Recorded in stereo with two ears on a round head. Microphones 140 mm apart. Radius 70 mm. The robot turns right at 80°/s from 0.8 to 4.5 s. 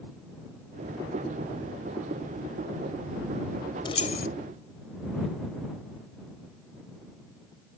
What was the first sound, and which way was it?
Keys jangling, 30° left (ahead or behind).